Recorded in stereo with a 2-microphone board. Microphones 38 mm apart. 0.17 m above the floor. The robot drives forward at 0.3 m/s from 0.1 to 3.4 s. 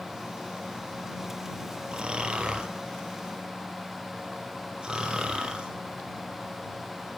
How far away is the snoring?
About 1.4 m.